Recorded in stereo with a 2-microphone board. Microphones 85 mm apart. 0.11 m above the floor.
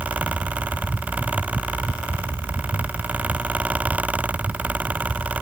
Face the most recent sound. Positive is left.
No sound to turn to.